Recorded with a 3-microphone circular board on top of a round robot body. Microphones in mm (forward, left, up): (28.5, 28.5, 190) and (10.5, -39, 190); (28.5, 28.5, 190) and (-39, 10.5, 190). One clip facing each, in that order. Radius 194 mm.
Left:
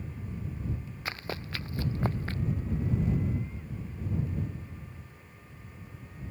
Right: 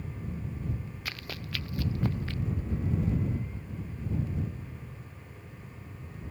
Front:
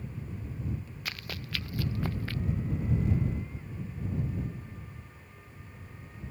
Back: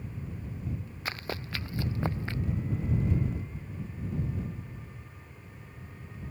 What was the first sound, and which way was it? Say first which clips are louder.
Running footsteps: left 5 dB, back 5 dB; 135° left.